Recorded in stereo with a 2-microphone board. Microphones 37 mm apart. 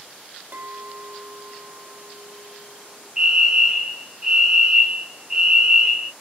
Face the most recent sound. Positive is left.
turn(degrees=-15)  # may be behind; listen again after turning